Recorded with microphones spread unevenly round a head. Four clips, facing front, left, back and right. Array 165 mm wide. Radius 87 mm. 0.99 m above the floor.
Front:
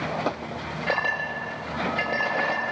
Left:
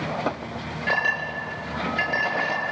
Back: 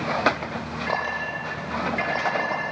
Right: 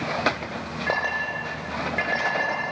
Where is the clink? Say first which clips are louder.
Left 1 dB, front 1 dB; 60° right, 8.5 m.